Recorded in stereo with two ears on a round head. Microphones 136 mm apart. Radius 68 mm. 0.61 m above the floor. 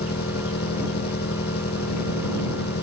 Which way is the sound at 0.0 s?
75° left (ahead or behind).